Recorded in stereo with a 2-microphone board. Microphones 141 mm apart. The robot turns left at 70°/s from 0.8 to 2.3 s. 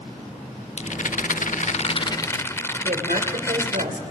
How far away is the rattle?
About 0.6 m.